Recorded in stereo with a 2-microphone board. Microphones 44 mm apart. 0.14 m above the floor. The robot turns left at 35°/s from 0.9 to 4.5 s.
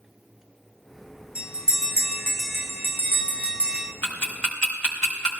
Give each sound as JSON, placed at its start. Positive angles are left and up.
{"t": 1.4, "sound": "a bell", "side_deg": 75, "distance_m": 1.8}
{"t": 4.0, "sound": "ticking", "side_deg": 35, "distance_m": 3.5}